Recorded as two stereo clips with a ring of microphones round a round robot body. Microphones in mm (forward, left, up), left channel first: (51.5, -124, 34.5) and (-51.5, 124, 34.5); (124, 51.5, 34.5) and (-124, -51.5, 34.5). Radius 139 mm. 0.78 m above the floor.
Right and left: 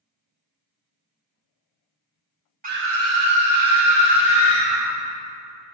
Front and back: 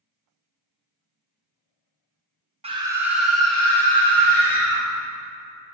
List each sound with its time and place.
2.6 s a scream: 150° left, 0.8 m; by 4.8 s 105° left, 3.5 m